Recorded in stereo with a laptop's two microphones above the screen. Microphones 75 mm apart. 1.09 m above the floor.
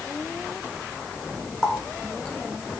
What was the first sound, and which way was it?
A running tap, 5° left (ahead or behind).